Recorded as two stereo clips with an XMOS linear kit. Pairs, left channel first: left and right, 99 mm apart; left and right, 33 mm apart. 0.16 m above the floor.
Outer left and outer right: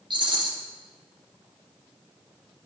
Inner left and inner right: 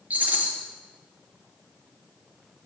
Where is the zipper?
I don't hear a zipper.